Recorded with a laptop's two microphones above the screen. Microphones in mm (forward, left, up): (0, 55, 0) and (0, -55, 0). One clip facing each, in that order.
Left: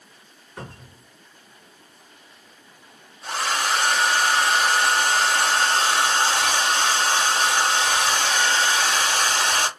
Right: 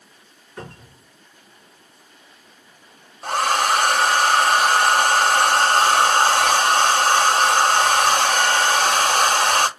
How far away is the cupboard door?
About 1.7 m.